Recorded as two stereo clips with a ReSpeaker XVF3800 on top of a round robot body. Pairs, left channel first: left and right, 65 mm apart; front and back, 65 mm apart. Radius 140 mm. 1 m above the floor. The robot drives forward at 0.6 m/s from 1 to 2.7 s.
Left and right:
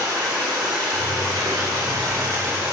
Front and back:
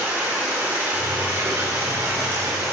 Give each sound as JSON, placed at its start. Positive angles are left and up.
{"t": 0.0, "sound": "running water", "azimuth_deg": -115, "distance_m": 3.0}